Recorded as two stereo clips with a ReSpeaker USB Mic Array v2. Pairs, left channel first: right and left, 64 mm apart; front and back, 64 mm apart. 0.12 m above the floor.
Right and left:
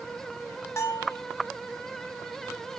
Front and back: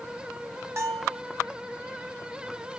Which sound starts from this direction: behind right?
A bell, at 0.8 s.